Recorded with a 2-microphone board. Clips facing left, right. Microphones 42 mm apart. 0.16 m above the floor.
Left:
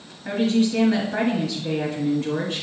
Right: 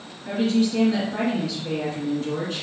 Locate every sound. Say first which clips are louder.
0.2 s a woman speaking: left 1 dB; 40° left (ahead or behind), 1.6 m